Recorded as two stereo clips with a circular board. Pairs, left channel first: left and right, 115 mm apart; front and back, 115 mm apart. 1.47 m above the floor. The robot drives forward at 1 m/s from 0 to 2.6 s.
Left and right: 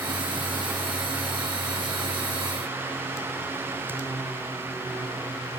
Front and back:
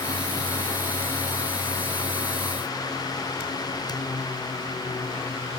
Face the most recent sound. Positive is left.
No sound to turn to.